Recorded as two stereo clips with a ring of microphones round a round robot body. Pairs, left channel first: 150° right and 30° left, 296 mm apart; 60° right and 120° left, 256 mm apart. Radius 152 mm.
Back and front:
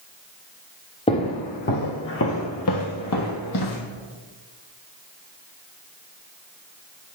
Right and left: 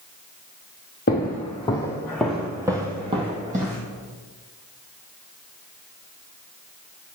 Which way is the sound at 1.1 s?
90° right.